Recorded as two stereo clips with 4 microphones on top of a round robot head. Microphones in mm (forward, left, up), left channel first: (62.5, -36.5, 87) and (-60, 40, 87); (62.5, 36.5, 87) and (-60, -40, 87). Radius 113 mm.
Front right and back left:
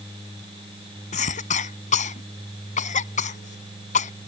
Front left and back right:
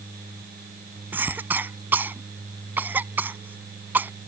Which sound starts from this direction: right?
A cough, at 1.1 s.